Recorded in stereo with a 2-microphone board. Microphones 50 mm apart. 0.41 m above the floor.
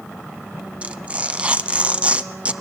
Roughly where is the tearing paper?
Right.